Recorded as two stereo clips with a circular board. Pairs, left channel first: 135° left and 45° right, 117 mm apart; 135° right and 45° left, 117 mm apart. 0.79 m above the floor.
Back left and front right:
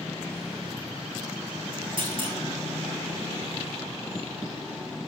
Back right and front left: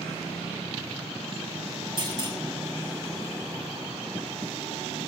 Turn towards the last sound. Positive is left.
turn(degrees=-5)